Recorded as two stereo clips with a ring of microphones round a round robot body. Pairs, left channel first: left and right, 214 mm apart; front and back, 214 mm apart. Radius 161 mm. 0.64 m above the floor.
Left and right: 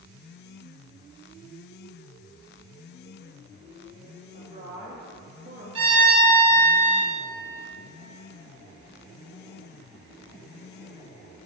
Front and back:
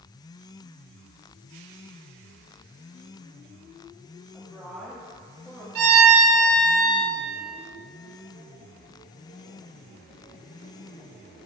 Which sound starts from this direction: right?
A woman speaking, at 4.3 s.